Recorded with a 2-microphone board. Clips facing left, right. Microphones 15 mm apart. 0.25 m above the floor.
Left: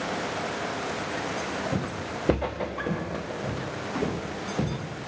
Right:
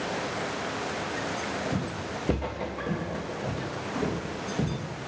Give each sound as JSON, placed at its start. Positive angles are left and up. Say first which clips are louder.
{"t": 1.7, "sound": "footsteps", "louder": "left 1 dB", "side_deg": 80, "distance_m": 1.2}